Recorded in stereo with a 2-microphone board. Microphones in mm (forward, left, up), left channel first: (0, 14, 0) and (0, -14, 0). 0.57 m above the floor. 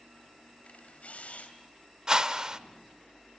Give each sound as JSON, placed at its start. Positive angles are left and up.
{"t": 0.6, "sound": "a camera shutter", "side_deg": 65, "distance_m": 2.5}
{"t": 2.1, "sound": "a whoosh", "side_deg": -30, "distance_m": 0.8}